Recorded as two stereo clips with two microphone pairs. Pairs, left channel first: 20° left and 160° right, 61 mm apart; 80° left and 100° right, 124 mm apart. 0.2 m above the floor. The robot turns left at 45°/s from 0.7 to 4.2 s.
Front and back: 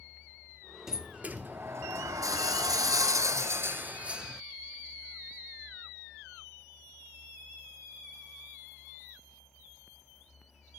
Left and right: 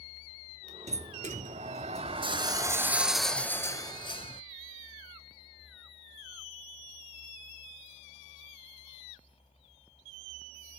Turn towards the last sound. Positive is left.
turn(degrees=130)